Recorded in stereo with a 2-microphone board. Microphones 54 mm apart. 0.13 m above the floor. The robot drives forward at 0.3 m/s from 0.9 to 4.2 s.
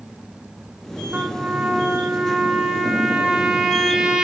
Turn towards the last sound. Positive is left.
turn(degrees=-10)  # may be behind; listen again after turning